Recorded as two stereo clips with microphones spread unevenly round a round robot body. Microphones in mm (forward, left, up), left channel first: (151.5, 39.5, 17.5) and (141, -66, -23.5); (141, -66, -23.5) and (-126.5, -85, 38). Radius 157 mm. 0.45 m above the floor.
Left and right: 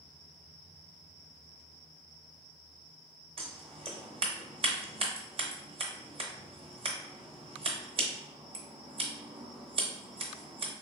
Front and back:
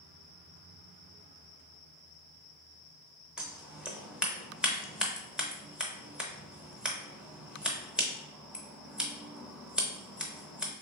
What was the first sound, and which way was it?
Scissors, 85° right.